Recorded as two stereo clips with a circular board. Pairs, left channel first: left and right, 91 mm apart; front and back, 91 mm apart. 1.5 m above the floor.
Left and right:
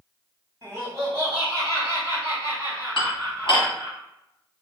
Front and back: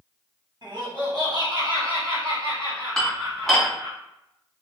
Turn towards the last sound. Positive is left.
turn(degrees=85)